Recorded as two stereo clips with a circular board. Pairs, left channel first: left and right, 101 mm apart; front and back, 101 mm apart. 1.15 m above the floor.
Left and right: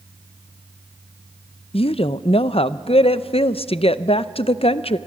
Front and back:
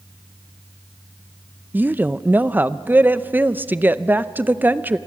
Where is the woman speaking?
110° left, 0.6 m.